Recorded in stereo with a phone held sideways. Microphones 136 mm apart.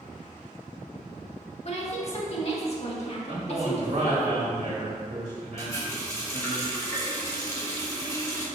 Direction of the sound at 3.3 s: 55° right (ahead or behind).